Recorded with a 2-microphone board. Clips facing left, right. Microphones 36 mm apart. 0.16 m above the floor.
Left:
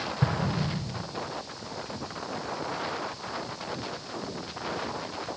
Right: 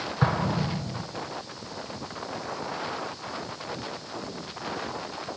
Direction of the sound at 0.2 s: 60° right (ahead or behind).